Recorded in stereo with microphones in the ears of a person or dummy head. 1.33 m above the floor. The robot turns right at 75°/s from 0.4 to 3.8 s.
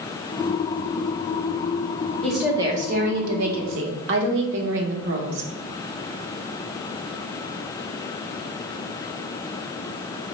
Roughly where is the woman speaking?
Behind.